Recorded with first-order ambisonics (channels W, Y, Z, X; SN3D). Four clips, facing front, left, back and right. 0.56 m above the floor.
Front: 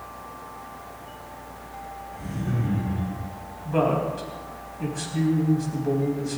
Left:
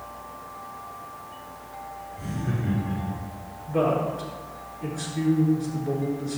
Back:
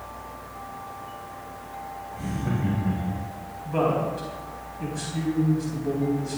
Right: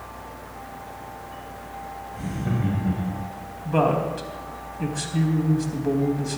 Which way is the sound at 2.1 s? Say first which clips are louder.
Right 3 dB, back 1 dB; 120° right.